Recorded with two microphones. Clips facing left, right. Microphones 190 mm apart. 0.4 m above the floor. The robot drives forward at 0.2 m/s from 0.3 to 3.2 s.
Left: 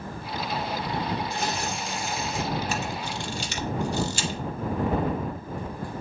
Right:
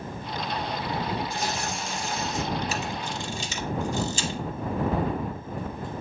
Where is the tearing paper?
65° left (ahead or behind), 1.4 m; by 2.5 s 60° left (ahead or behind), 1.5 m.